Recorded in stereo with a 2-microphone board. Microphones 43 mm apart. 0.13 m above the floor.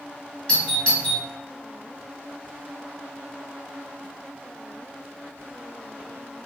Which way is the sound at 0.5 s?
25° left (ahead or behind).